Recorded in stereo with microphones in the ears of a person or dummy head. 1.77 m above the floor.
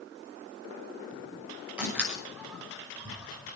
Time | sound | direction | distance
1.8 | a door slam | 10° right (ahead or behind) | 5.5 m